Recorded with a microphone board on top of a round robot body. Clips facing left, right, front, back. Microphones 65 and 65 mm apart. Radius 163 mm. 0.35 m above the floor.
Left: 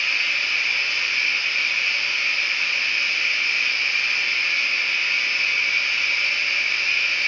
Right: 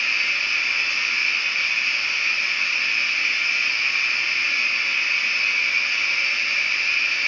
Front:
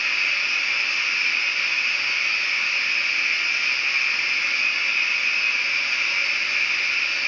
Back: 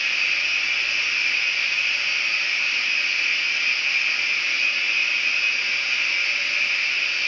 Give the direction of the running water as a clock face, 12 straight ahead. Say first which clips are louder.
Even, even; 1 o'clock.